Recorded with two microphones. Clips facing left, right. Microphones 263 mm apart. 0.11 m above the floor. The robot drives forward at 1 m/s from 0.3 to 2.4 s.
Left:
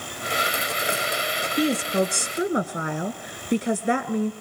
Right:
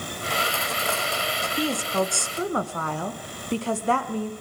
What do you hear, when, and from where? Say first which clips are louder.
1.6 s a woman speaking: left 4 dB; 20° left (ahead or behind), 1.2 m